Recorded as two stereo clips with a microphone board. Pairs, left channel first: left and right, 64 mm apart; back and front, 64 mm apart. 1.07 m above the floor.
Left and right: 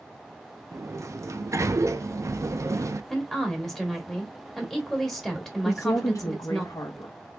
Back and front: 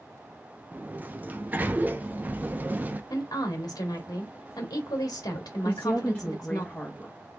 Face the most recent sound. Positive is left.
turn(degrees=110)